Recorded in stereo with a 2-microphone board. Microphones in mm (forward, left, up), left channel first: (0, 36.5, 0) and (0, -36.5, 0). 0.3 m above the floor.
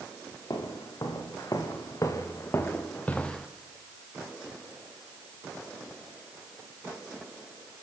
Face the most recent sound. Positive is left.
turn(degrees=5)  # may be behind; listen again after turning